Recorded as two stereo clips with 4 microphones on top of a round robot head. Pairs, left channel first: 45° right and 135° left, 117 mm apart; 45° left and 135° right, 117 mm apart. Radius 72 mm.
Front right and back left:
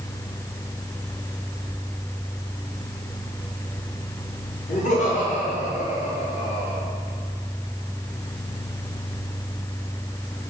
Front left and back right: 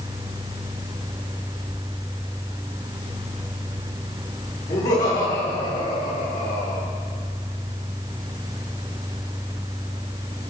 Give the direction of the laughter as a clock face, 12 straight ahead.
1 o'clock.